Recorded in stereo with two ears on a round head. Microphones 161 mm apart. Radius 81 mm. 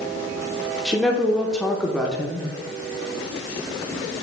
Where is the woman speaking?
Centre (ahead or behind), 0.7 m.